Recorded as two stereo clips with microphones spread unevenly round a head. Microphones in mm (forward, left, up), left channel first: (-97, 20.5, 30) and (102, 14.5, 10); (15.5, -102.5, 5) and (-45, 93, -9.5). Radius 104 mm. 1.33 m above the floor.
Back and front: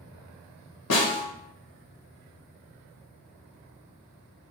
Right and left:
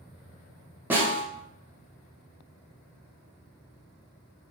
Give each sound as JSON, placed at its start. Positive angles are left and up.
{"t": 0.9, "sound": "a snare drum", "azimuth_deg": -170, "distance_m": 0.7}